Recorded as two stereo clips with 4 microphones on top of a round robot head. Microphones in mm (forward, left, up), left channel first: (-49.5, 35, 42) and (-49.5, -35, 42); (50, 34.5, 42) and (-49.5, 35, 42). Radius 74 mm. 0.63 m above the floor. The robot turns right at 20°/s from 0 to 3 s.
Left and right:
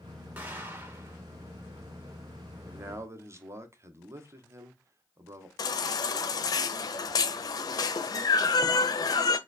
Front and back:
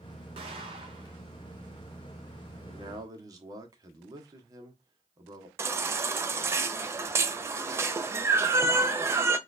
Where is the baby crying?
115° left, 0.7 m.